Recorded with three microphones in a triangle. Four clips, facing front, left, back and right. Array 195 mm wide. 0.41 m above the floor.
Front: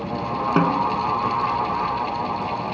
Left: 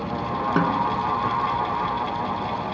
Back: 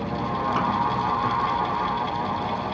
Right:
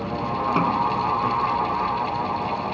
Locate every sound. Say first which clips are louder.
0.6 s a snare drum: even, front 5 dB; 15° left